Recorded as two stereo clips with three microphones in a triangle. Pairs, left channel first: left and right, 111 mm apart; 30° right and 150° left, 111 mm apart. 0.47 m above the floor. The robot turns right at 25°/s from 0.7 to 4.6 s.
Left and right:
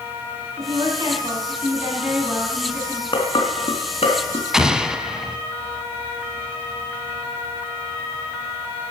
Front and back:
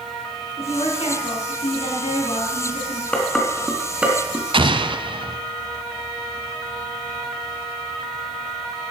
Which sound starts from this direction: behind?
An explosion, at 4.5 s.